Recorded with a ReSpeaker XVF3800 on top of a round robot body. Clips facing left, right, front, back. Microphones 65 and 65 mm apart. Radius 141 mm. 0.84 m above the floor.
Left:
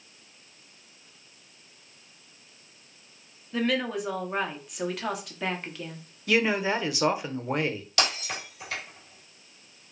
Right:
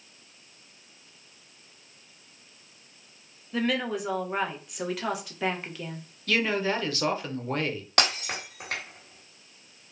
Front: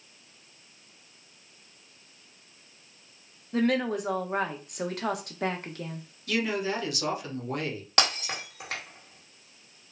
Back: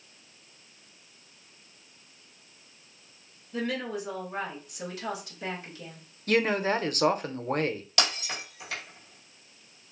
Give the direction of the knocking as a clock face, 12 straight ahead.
I don't hear knocking.